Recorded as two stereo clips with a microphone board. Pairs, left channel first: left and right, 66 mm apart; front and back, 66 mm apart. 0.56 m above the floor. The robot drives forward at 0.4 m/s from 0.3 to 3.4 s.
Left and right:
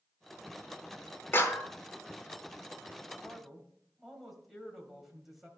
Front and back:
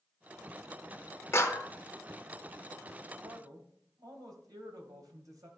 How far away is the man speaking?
About 2.5 m.